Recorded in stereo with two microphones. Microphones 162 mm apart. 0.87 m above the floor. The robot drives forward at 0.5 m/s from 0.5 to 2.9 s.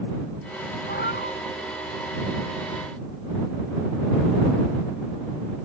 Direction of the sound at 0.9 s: 85° left.